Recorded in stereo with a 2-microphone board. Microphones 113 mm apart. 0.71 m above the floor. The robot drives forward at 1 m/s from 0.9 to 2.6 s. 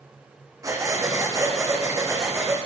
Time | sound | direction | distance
0.6 | breathing | 30° right (ahead or behind) | 8.5 m